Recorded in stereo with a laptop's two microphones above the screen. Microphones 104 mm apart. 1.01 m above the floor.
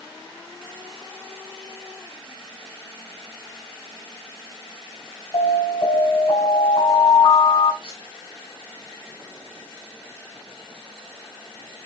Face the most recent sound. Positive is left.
turn(degrees=70)  # may be behind; listen again after turning